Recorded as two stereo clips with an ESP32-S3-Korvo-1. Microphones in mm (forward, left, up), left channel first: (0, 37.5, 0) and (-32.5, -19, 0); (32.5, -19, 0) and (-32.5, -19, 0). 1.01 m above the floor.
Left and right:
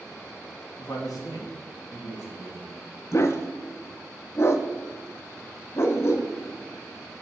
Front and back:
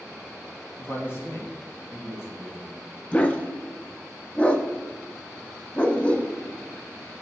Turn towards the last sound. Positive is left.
turn(degrees=60)